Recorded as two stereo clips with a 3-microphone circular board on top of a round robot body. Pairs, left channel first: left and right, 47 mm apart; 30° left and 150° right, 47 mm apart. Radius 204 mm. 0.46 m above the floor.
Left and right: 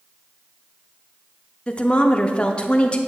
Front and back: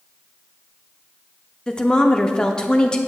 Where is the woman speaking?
70° left, 0.8 m.